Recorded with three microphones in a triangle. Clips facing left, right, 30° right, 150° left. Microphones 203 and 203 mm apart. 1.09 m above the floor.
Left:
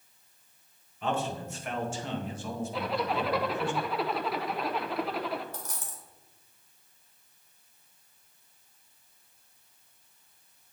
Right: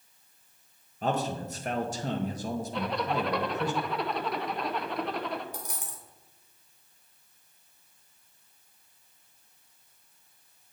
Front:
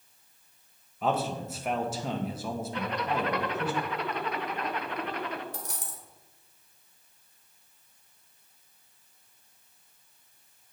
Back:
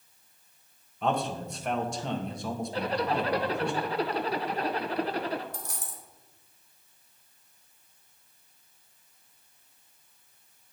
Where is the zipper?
175° left, 0.5 m.